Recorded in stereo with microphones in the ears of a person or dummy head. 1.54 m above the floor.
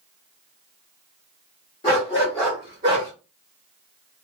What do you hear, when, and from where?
1.8 s a dog barking: 25° left (ahead or behind), 1.1 m; by 3.1 s 25° right (ahead or behind), 1.0 m